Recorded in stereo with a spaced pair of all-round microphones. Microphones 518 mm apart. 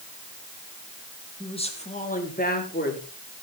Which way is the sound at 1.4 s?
10° left (ahead or behind).